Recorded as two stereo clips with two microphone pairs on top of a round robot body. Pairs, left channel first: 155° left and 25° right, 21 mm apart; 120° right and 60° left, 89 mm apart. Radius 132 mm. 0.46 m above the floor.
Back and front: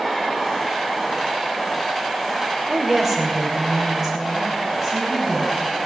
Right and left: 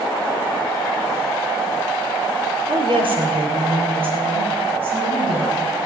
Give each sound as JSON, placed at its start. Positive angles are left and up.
{"t": 2.7, "sound": "a woman speaking", "azimuth_deg": 50, "distance_m": 3.0}